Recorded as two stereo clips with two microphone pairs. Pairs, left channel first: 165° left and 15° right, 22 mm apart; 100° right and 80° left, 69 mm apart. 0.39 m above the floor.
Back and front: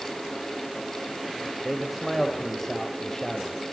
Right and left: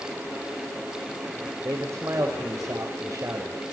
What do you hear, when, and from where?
1.6 s a man speaking: 60° left, 2 m; by 3.7 s 105° left, 2 m